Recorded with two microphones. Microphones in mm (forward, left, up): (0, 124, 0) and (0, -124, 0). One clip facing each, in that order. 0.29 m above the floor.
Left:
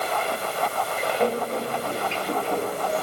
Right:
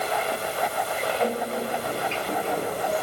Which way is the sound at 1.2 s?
30° left (ahead or behind).